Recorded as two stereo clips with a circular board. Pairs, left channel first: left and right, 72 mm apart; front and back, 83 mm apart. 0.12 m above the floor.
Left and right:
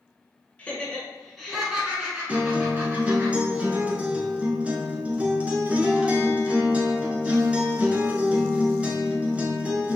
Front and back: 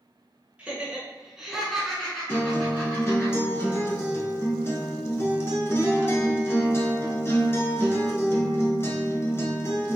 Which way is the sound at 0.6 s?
130° left.